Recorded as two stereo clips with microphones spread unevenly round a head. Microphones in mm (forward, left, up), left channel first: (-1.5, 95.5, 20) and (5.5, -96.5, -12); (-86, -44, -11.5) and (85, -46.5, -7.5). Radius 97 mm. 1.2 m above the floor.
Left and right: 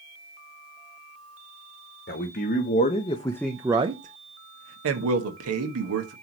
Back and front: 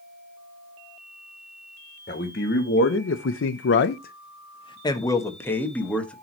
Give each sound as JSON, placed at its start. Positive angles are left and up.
{"t": 2.1, "sound": "a man speaking", "azimuth_deg": 130, "distance_m": 1.1}